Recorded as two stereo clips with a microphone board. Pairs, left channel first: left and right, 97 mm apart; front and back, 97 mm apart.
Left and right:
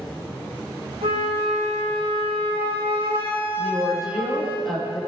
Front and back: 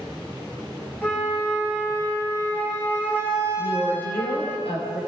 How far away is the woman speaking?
About 7 m.